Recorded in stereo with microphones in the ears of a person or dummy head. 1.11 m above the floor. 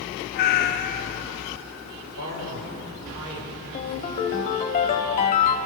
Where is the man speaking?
80° right, 4.5 m.